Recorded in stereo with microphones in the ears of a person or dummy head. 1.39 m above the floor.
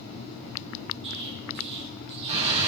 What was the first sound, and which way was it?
An explosion, 25° right (ahead or behind).